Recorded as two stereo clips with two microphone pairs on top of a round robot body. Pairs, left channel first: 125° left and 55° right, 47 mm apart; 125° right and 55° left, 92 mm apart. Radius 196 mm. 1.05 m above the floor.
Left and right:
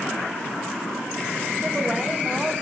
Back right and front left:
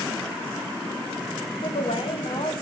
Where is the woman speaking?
135° right, 2.5 m.